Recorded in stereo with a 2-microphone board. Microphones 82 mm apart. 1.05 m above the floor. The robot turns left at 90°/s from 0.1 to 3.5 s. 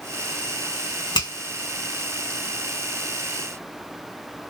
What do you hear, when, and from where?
1.1 s a finger snap: 65° left (ahead or behind), 1.2 m; by 1.3 s 75° left (ahead or behind), 1.2 m